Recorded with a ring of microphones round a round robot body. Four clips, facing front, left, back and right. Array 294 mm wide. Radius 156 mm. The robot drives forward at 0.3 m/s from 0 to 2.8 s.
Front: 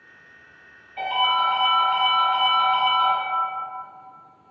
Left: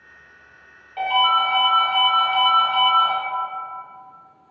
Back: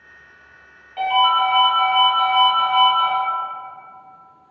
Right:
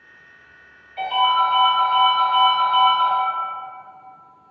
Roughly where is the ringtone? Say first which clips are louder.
Right 1 dB, back 5 dB; behind left.